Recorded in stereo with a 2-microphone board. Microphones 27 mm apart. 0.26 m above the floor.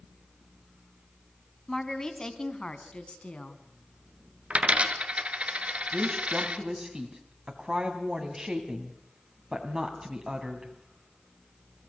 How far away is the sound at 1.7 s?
About 1.9 m.